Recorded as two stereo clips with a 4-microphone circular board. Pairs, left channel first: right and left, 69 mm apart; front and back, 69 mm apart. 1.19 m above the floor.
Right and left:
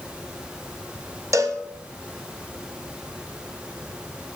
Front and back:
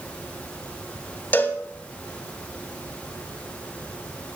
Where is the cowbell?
60° left, 0.9 m.